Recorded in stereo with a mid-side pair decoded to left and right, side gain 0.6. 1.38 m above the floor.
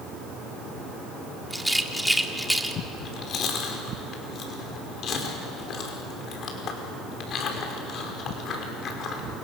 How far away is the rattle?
About 2 m.